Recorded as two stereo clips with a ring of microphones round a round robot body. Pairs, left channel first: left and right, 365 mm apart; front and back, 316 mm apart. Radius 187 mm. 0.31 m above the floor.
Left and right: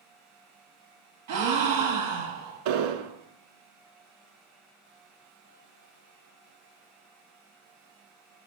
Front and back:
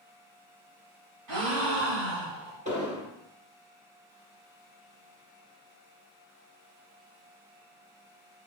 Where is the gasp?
140° right, 1.9 m.